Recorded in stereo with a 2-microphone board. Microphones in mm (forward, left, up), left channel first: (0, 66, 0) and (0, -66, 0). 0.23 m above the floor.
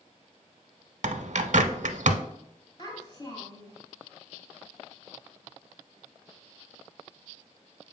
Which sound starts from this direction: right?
A bird, at 1.0 s.